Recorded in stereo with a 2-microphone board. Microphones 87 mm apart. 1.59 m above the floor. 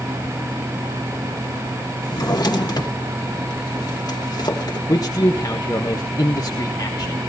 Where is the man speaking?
45° left (ahead or behind), 1.4 m.